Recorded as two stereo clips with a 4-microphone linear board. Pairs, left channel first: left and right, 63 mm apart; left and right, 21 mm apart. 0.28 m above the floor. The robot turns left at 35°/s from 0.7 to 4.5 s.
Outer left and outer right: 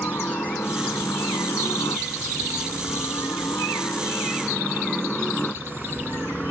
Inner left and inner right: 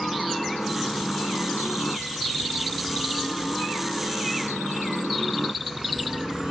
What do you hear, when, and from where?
0.0 s a helicopter: 35° left (ahead or behind); by 6.5 s 20° left (ahead or behind)